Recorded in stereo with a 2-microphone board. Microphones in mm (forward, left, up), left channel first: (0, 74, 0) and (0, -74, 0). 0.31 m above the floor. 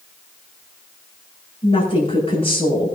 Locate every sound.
1.6 s a woman speaking: 45° left (ahead or behind), 6.5 m